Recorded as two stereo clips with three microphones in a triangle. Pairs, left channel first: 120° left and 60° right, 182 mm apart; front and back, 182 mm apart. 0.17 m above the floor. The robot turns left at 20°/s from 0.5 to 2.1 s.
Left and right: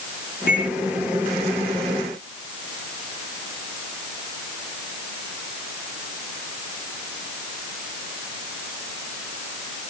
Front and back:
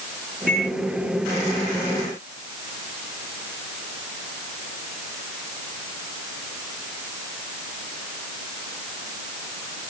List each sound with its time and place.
0.5 s a microwave: 150° left, 6.5 m; by 0.7 s 145° left, 6.5 m